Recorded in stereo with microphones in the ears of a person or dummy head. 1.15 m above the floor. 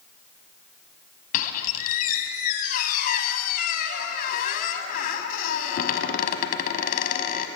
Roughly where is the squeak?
Left.